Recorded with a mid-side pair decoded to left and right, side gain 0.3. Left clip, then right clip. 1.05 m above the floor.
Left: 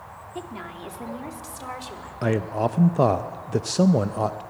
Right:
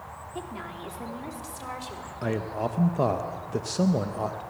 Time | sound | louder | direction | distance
0.3 | a woman speaking | left 2 dB | 25° left | 2.5 m
2.2 | a man speaking | left 5 dB | 55° left | 0.6 m